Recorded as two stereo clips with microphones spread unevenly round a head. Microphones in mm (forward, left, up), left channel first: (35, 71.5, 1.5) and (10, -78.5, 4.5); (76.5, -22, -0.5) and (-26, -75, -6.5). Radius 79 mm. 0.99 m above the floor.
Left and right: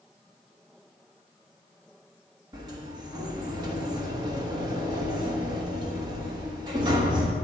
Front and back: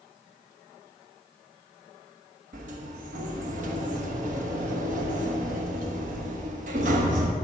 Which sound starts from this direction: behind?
A sliding door, at 2.5 s.